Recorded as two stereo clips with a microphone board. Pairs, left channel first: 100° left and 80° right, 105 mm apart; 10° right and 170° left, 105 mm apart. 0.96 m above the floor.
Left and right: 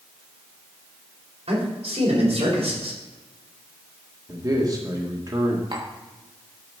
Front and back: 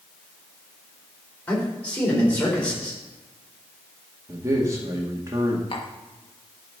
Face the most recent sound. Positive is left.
turn(degrees=-40)